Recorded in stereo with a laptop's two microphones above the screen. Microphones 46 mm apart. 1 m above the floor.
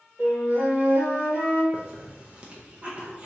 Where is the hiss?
25° right (ahead or behind), 0.6 m.